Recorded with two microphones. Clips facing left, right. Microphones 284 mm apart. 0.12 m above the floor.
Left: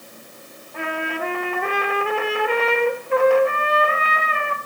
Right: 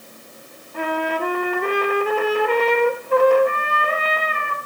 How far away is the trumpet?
About 1.2 m.